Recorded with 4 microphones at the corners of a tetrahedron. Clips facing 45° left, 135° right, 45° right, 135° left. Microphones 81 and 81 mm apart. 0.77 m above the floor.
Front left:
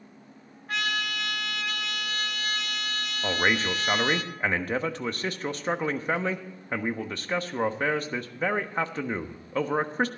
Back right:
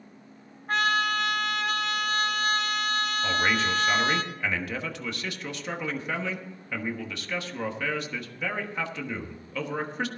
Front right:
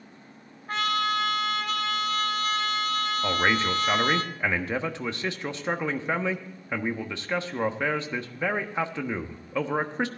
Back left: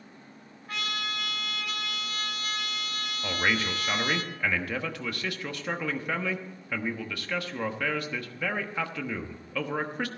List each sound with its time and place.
0.7 s a trumpet: 90° right, 1.3 m
3.2 s a man speaking: 10° left, 1.1 m